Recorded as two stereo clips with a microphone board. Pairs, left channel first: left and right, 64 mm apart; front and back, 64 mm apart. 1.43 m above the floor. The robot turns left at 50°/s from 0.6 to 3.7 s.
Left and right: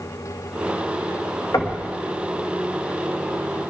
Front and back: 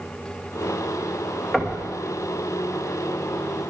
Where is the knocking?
90° left, 1.7 m; by 1.8 s 75° left, 1.7 m.